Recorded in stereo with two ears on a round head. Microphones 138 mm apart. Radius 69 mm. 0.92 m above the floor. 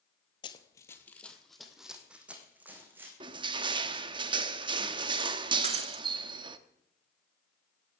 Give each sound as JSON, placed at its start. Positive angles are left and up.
{"t": 0.4, "sound": "running footsteps", "side_deg": 30, "distance_m": 1.3}
{"t": 3.2, "sound": "crushing", "side_deg": -30, "distance_m": 0.8}
{"t": 5.6, "sound": "breaking glass", "side_deg": -45, "distance_m": 1.2}